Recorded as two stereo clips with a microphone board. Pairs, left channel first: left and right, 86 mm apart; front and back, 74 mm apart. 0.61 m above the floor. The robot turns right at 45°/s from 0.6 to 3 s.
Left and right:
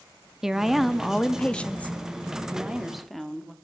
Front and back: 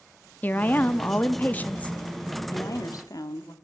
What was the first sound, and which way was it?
A woman speaking, 15° right.